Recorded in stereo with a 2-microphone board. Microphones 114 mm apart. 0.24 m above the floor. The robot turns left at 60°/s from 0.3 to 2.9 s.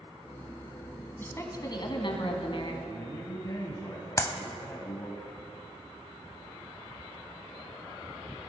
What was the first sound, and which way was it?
A woman speaking, 160° left.